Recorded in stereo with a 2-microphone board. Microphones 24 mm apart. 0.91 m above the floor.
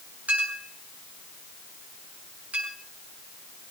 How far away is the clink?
About 7 m.